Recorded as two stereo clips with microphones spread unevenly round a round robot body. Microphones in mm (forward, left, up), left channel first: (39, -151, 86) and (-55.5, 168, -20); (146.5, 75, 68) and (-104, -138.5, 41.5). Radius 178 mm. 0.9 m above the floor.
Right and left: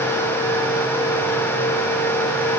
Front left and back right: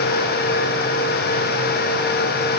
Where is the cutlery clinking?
No cutlery clinking in this recording.